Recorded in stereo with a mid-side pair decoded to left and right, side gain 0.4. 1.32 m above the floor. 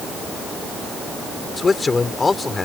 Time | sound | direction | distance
1.6 | a man speaking | 35° left | ?